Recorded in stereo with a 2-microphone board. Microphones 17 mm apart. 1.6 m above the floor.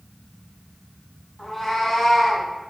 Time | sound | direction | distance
1.4 | a cat meowing | 15° left (ahead or behind) | 1.1 m